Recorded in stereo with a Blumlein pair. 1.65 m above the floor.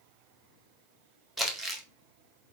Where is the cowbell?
No cowbell in this recording.